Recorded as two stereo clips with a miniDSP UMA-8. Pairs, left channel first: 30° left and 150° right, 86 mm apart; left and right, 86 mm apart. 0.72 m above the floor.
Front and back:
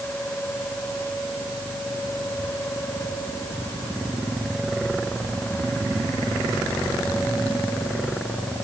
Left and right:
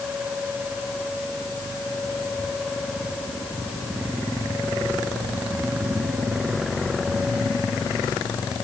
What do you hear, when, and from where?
Only background noise.